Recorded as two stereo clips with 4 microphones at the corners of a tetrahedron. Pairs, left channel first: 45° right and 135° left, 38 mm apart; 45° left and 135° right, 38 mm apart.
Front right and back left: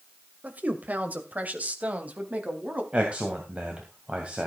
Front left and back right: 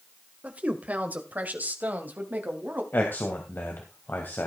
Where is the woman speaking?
175° left, 1.9 m; by 2.8 s 175° right, 3 m.